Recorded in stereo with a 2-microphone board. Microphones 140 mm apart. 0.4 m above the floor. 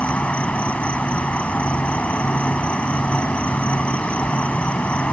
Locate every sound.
0.0 s an insect: 10° left (ahead or behind)